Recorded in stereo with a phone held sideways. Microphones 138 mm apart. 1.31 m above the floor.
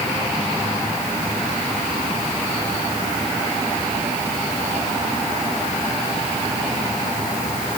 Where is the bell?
No bell in this recording.